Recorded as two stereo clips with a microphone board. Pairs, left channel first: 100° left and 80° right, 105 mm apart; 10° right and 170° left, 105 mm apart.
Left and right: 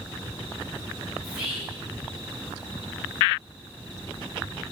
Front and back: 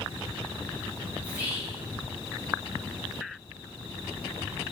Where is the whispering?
160° right, 1.1 m.